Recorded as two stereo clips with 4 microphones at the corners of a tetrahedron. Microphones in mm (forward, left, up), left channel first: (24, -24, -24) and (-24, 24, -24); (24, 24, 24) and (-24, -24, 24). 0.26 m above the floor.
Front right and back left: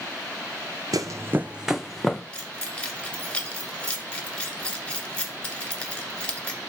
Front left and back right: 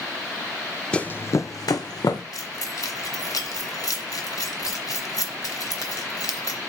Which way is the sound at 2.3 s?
25° left.